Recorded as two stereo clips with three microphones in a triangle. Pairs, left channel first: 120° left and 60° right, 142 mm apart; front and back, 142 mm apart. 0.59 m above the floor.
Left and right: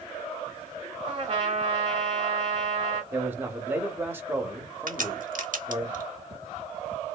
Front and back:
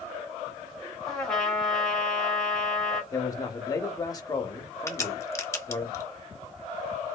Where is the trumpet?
85° right, 1.6 m.